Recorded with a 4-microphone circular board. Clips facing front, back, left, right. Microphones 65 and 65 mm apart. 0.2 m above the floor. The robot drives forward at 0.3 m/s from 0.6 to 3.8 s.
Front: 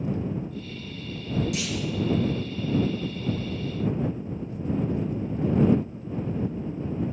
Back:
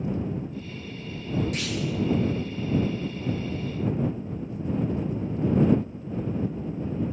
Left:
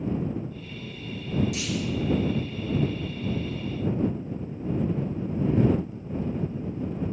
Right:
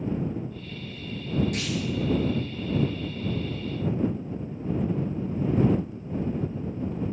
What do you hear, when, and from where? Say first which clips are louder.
1.5 s a clunk: even, even; 130° right, 1.4 m; by 1.9 s 135° right, 1.5 m